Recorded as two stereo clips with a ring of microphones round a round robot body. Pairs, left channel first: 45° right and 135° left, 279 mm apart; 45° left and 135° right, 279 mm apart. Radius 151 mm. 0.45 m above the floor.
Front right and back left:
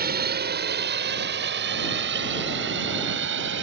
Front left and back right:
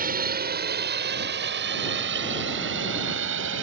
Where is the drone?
Straight behind.